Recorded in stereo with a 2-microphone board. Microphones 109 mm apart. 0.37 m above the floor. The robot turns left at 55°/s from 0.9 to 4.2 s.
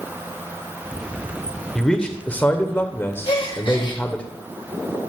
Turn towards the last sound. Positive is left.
turn(degrees=45)